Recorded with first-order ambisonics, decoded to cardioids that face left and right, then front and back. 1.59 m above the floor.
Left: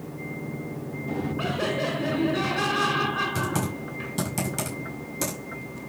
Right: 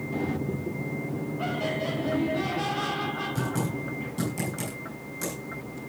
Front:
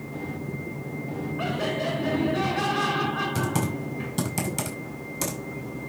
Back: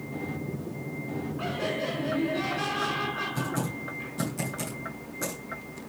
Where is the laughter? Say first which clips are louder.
Left 2 dB, front 3 dB; 80° left, 5.5 m.